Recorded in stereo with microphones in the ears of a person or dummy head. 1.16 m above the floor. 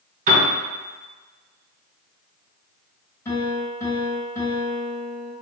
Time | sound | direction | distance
0.3 | a piano | 45° right (ahead or behind) | 2.5 m
3.2 | a piano | 15° left (ahead or behind) | 3 m